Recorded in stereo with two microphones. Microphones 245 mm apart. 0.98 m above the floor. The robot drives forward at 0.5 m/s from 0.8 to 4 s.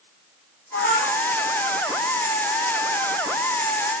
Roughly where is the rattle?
No rattle in this recording.